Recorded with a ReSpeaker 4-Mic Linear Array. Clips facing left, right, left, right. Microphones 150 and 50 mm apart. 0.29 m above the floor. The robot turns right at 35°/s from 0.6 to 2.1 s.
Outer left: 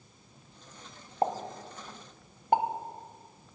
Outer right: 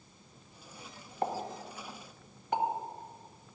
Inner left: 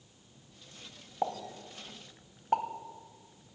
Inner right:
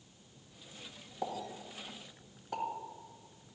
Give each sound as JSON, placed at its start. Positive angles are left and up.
{"t": 1.2, "sound": "a pop", "side_deg": 35, "distance_m": 1.2}